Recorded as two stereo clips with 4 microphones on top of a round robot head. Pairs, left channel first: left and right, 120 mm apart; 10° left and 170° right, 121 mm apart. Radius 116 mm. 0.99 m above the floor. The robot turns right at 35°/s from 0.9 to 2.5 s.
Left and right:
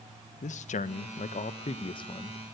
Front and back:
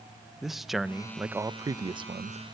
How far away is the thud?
I don't hear a thud.